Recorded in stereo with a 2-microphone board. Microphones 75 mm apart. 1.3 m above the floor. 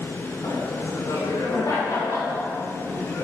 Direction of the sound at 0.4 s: 70° left (ahead or behind).